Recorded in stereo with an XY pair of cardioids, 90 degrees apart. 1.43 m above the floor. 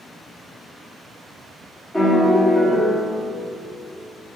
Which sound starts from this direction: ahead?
A piano, at 1.9 s.